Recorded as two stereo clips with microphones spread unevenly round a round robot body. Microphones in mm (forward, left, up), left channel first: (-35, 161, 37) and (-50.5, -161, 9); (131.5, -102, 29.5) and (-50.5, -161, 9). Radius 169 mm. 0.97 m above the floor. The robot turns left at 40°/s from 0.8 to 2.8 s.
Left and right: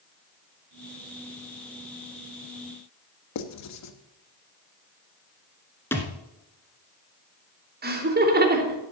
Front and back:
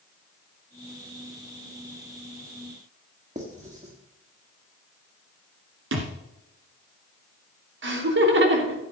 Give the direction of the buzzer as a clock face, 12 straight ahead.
I don't hear a buzzer.